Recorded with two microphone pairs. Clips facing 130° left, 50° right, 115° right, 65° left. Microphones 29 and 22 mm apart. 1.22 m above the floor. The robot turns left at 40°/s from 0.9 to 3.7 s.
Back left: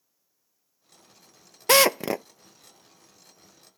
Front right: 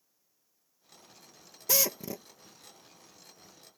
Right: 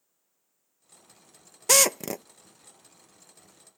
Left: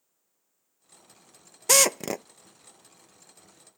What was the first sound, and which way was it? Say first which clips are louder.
A drill: back left 12 dB, even; 160° left.